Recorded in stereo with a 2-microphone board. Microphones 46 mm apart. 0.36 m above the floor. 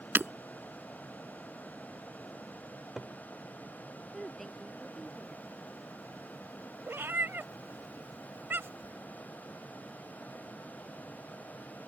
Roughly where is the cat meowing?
Right.